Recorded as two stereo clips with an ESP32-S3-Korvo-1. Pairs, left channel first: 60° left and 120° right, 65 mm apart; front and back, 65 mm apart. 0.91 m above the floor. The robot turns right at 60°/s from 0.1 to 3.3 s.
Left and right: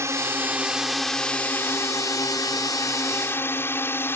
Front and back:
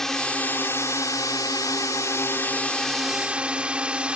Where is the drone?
85° right; by 4.2 s 110° left.